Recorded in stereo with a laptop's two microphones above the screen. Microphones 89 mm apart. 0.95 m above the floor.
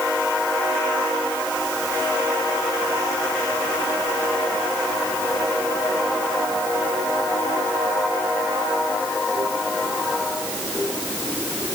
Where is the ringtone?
No ringtone in this recording.